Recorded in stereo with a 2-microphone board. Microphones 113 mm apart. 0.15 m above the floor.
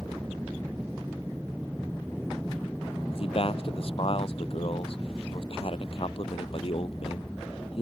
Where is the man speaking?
55° left (ahead or behind).